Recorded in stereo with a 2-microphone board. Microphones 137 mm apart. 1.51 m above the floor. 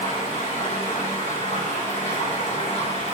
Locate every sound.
0.0 s running water: 60° left (ahead or behind), 5.5 m